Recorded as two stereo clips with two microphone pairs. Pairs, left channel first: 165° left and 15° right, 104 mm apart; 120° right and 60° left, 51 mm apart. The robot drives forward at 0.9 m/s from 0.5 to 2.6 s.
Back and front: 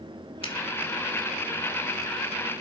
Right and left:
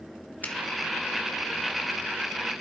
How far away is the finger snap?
About 2.0 m.